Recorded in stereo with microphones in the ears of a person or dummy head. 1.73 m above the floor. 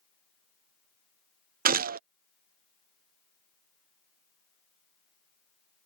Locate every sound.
1.6 s a gunshot: 55° right (ahead or behind)